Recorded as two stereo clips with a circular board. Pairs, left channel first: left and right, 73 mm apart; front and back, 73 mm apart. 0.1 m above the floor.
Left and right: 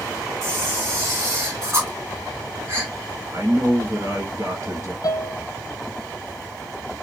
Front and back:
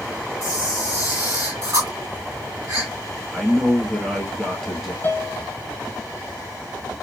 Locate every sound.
0.4 s a camera shutter: 140° right, 3.5 m
3.3 s a man speaking: 90° right, 2 m
5.0 s a piano: 60° left, 0.7 m